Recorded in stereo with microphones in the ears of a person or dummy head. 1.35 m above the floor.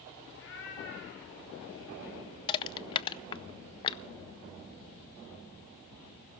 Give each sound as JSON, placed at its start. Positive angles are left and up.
{"t": 0.3, "sound": "a cat meowing", "side_deg": 70, "distance_m": 4.0}
{"t": 2.5, "sound": "crushing", "side_deg": 30, "distance_m": 0.5}